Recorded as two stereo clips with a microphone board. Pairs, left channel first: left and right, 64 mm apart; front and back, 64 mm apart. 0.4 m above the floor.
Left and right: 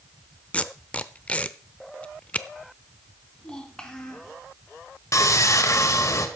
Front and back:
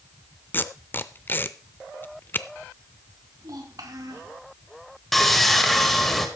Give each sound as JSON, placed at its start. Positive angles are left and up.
{"t": 0.5, "sound": "tape being pulled", "azimuth_deg": 35, "distance_m": 0.6}
{"t": 3.4, "sound": "a child speaking", "azimuth_deg": 165, "distance_m": 2.5}
{"t": 5.1, "sound": "sawing", "azimuth_deg": 85, "distance_m": 1.6}